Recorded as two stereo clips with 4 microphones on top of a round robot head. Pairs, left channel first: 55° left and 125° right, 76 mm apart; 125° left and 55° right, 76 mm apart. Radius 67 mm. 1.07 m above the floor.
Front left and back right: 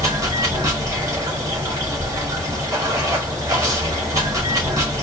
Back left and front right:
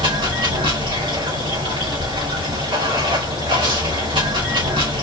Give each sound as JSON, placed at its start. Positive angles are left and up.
{"t": 0.0, "sound": "running water", "azimuth_deg": -75, "distance_m": 2.5}